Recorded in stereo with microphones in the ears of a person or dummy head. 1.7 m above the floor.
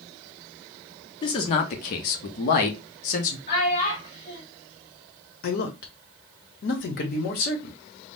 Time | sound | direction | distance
1.2 | a man speaking | 30° left (ahead or behind) | 0.7 m
3.5 | a child speaking | 45° left (ahead or behind) | 1.5 m
5.4 | a man speaking | 60° left (ahead or behind) | 0.9 m